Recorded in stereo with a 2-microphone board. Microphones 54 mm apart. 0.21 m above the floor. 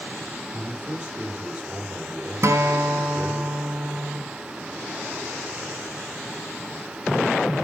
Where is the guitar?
60° right (ahead or behind), 1.3 m.